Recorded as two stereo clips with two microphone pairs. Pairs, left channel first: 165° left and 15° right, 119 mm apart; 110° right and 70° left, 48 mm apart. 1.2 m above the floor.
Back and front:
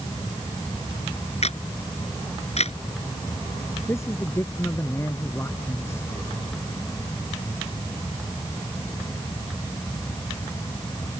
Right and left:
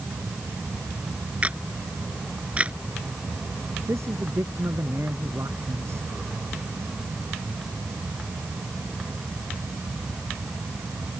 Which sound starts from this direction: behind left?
A camera shutter, at 1.4 s.